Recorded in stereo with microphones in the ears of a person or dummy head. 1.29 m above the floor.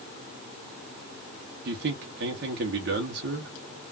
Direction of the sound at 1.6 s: 55° right (ahead or behind).